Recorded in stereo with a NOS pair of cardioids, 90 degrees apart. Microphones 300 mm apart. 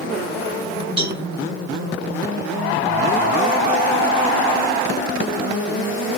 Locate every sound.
1.0 s a cowbell: 20° right, 1.5 m